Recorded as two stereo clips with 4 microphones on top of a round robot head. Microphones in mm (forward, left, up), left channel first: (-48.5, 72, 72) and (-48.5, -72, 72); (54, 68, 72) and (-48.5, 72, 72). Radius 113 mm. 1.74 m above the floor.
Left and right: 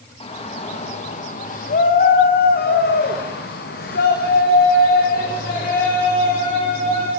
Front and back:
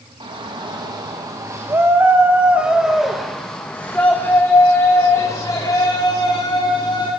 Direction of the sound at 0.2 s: 140° left.